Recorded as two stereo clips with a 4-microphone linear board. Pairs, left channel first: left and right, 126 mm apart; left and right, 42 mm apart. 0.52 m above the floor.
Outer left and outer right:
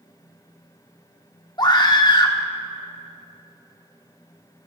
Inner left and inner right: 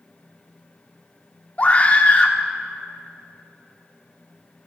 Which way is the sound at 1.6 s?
35° left (ahead or behind).